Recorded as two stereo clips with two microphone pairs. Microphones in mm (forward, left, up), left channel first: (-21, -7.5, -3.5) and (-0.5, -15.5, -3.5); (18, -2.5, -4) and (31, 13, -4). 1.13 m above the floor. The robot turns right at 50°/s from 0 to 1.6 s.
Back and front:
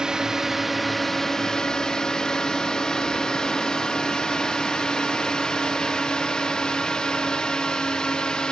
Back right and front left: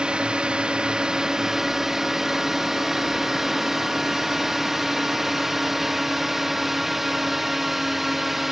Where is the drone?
25° left; by 8.5 s 125° left.